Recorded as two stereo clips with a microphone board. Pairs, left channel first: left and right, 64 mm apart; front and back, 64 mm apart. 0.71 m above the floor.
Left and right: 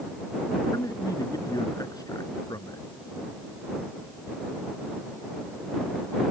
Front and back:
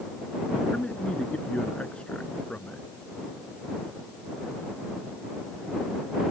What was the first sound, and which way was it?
A man speaking, 70° left.